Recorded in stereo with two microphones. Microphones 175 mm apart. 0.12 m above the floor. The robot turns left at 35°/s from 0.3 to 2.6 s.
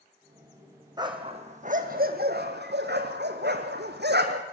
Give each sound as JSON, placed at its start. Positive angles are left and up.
{"t": 1.0, "sound": "a dog barking", "side_deg": -25, "distance_m": 2.5}